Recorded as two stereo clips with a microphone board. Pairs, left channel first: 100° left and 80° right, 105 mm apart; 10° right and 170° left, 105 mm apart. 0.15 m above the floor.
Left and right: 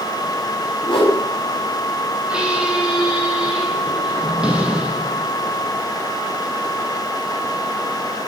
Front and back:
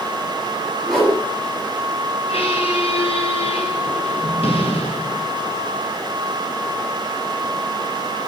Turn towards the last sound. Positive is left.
turn(degrees=0)